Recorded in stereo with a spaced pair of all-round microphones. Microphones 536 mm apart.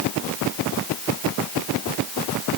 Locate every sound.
Only background noise.